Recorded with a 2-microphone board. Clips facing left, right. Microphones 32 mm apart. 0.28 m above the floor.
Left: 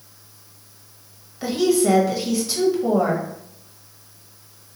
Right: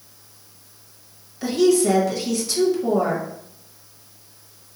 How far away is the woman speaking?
About 0.9 m.